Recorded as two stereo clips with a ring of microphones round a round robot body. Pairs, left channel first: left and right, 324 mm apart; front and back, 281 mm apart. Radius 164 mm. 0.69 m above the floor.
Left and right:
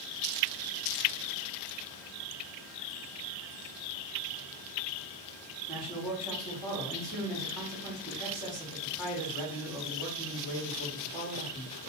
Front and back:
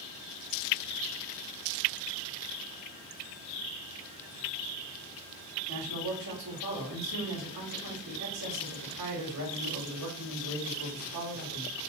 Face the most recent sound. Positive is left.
turn(degrees=180)